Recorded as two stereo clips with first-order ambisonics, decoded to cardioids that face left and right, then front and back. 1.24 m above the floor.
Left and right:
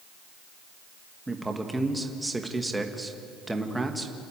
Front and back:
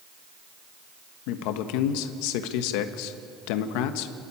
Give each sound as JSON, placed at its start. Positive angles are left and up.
{"t": 1.3, "sound": "a man speaking", "azimuth_deg": -5, "distance_m": 1.3}